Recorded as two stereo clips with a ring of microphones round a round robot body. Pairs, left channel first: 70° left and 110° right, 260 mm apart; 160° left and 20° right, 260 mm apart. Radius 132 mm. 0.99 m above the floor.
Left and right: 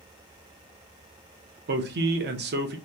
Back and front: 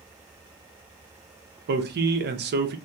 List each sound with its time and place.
1.7 s a man speaking: 70° right, 0.7 m